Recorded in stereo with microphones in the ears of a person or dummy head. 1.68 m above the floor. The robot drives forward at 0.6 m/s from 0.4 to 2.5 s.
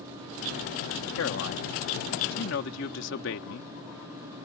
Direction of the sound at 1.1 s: 85° left.